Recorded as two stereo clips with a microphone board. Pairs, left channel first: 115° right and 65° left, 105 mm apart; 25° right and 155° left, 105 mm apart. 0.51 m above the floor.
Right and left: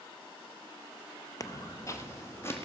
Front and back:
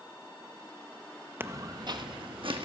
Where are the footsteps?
145° right, 0.6 m; by 2.7 s 175° right, 1.6 m.